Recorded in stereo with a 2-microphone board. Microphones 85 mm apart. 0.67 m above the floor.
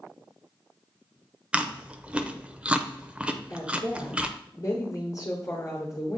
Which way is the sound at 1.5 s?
15° right (ahead or behind).